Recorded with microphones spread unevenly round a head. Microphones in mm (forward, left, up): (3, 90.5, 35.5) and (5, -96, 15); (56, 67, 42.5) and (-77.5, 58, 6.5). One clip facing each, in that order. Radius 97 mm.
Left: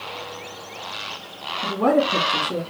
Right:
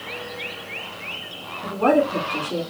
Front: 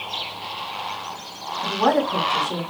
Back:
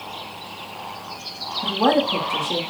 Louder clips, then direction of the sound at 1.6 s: Right 1 dB, back 1 dB; 125° left.